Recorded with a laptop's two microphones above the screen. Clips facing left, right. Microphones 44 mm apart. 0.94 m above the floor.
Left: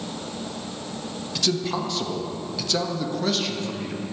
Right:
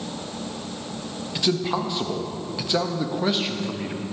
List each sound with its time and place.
1.4 s a man speaking: 20° right (ahead or behind), 0.9 m